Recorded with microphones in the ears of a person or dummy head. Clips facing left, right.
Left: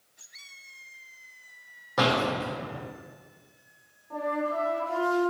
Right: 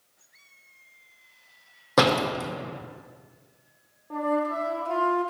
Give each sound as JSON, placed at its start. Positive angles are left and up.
{"t": 2.0, "sound": "a door slam", "side_deg": -70, "distance_m": 0.7}
{"t": 4.1, "sound": "a flute", "side_deg": -55, "distance_m": 0.7}